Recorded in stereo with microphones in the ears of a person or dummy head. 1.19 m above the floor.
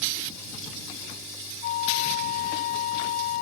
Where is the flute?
40° left (ahead or behind).